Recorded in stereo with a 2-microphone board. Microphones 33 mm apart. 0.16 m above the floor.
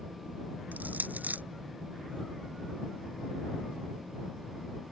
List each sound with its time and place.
0.7 s crushing: 55° right (ahead or behind)